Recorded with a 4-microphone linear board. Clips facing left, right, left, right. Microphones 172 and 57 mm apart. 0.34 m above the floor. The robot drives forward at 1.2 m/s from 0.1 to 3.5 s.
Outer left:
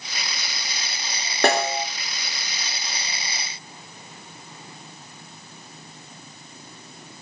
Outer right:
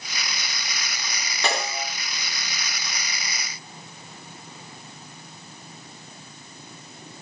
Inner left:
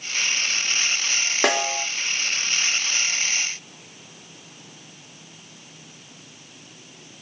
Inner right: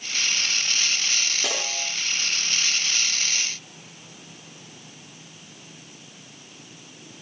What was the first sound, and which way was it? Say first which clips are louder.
A snare drum: outer left 7 dB, inner left 8 dB; 60° left (ahead or behind).